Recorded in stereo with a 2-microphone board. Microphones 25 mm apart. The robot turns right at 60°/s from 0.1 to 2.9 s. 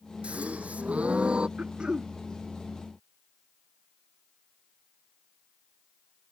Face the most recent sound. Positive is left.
turn(degrees=20)